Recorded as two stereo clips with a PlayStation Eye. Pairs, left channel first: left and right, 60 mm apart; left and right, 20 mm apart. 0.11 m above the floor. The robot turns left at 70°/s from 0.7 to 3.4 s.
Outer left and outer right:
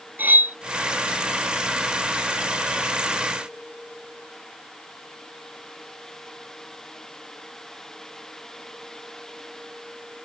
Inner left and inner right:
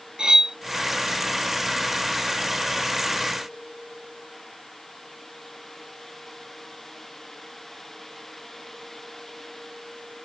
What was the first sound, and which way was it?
Cutlery clinking, 30° right (ahead or behind).